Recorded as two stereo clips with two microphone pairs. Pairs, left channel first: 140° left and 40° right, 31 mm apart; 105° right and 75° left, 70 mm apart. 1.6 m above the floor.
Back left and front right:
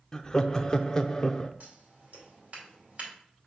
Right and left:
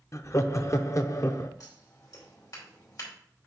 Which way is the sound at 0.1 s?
145° right.